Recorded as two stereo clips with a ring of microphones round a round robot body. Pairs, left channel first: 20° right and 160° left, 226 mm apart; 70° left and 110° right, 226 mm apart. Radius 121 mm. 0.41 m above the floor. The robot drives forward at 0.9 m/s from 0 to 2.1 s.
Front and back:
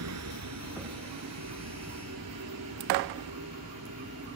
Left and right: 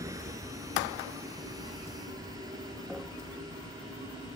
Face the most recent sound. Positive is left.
turn(degrees=175)